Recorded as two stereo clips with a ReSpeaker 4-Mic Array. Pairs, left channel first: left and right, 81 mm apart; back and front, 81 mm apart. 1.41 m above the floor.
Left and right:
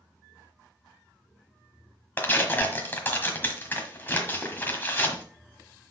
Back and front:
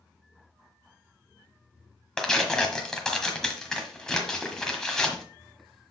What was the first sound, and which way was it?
Tearing paper, 105° left.